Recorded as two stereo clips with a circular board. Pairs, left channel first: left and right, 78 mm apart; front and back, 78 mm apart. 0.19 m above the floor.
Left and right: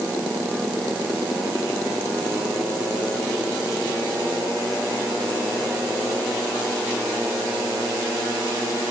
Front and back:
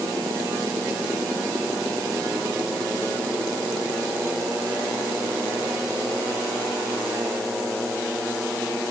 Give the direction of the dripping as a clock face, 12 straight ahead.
I don't hear dripping.